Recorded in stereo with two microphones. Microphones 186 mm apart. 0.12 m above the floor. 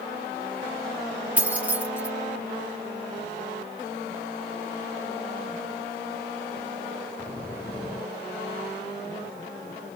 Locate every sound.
1.4 s keys jangling: 10° right (ahead or behind), 1.9 m